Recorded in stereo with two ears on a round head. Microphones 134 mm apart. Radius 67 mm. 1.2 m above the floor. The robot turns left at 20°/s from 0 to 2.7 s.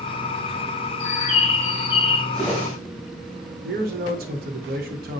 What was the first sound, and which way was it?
A bird, 40° left (ahead or behind).